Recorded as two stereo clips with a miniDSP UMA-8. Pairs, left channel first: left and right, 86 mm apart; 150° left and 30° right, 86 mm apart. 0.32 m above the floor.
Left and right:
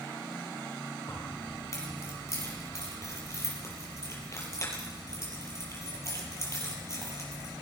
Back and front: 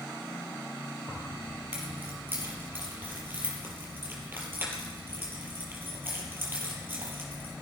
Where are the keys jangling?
35° left, 6.5 m.